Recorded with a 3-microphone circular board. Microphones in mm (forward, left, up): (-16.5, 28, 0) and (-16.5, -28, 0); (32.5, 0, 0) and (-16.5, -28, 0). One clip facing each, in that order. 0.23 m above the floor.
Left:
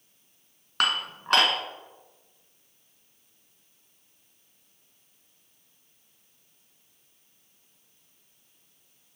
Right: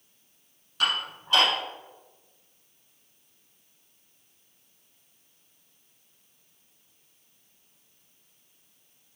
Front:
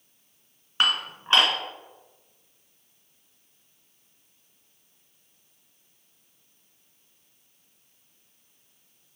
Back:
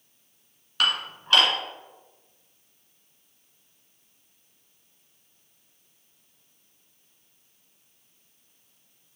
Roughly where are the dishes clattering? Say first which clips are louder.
Left 1 dB, front 1 dB; left.